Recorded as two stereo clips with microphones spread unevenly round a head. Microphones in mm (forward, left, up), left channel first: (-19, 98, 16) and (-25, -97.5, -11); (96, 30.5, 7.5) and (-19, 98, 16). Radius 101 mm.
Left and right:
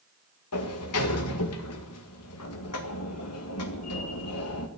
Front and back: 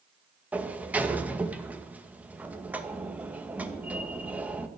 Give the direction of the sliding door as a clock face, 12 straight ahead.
10 o'clock.